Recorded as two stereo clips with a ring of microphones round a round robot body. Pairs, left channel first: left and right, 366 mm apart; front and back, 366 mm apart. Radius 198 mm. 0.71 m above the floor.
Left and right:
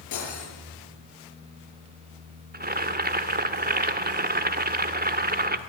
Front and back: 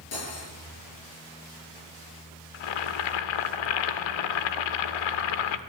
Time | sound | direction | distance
0.1 | cutlery clinking | 50° left | 9.5 m
2.5 | boiling | 25° right | 1.4 m